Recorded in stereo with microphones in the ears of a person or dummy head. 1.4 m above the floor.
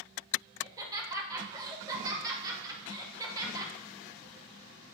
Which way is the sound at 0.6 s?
20° right (ahead or behind).